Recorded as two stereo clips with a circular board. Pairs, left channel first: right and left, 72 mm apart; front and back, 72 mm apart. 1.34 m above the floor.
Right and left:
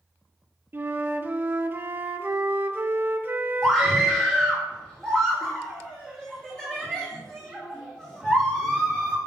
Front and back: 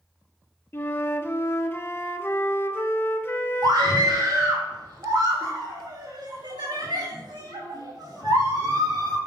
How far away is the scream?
About 2.5 m.